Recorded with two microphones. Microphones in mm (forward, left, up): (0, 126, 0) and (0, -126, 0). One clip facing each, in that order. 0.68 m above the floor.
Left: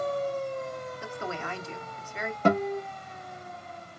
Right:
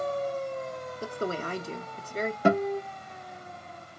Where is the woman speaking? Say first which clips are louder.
Right 8 dB; 40° right (ahead or behind), 0.7 m.